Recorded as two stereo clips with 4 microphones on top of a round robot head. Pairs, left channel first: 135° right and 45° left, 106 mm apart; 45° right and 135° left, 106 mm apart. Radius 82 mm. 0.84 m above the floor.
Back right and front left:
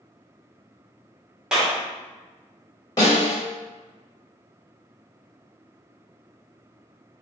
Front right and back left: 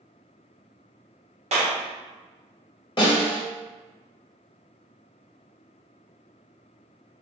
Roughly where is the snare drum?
Right.